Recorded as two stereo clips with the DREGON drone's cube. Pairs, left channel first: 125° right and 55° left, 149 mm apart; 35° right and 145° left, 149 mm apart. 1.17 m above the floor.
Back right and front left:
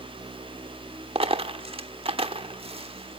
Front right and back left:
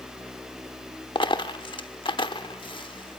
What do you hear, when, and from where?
1.1 s a dropped coin: 15° left, 1.1 m